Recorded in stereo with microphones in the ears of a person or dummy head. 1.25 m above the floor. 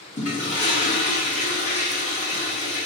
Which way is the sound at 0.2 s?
35° left (ahead or behind).